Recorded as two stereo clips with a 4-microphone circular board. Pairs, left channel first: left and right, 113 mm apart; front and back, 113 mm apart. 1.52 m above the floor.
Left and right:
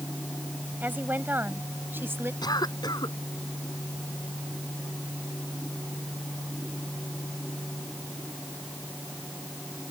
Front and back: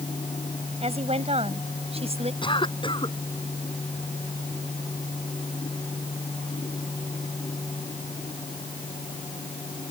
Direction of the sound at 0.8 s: 165° right.